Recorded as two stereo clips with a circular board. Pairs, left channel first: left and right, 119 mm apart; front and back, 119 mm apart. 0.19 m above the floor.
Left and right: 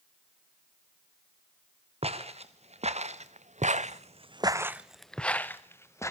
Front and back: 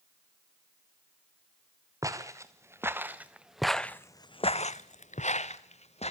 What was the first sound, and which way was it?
Footsteps, 120° right.